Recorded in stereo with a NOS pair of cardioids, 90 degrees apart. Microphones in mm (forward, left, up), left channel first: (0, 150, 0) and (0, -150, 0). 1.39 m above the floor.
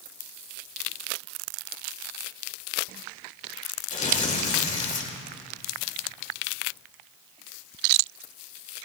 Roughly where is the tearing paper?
Ahead.